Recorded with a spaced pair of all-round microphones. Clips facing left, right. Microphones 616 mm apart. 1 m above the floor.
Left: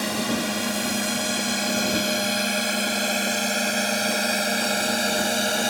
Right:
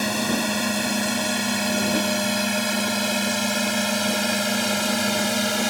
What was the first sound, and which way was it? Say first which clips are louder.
A drone: right 1 dB; 20° right (ahead or behind).